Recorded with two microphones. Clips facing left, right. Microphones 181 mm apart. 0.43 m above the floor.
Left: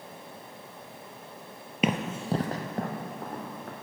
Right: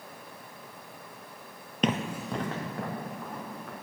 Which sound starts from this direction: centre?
Running footsteps, at 1.8 s.